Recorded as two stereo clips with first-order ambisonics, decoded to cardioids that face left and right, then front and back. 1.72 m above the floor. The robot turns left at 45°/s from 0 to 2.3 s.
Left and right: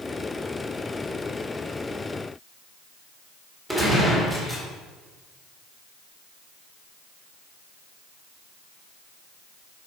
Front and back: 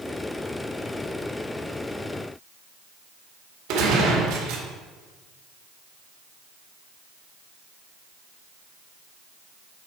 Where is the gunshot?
175° right, 2 m.